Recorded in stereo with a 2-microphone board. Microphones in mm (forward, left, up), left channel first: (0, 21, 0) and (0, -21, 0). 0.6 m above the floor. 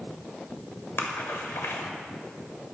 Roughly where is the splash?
Left.